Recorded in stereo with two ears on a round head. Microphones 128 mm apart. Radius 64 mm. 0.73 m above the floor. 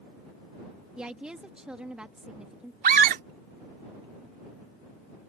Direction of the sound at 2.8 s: 65° right (ahead or behind).